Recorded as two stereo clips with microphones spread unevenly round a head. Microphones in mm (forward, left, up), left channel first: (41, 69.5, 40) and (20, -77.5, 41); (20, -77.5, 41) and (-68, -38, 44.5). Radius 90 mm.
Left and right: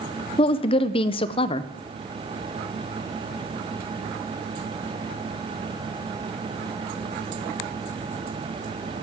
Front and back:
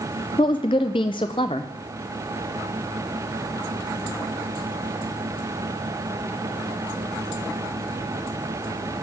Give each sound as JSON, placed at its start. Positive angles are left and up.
{"t": 0.4, "sound": "a woman speaking", "azimuth_deg": 35, "distance_m": 0.5}